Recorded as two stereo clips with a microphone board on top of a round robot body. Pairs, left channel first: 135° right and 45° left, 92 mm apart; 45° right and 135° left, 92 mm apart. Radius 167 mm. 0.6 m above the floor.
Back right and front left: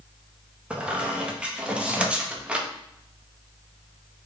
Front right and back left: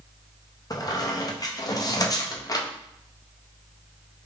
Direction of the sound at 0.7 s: 30° right.